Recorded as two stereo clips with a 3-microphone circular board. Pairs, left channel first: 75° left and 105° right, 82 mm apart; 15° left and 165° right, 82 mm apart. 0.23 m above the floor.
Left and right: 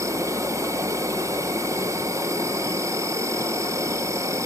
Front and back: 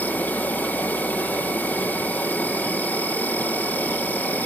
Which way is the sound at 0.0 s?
55° right.